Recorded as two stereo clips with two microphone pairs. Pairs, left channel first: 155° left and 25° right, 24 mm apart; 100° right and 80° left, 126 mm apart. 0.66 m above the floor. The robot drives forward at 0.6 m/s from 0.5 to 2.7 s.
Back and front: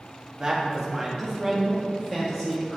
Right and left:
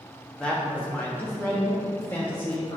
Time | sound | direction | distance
0.4 | a man speaking | 30° right | 1.2 m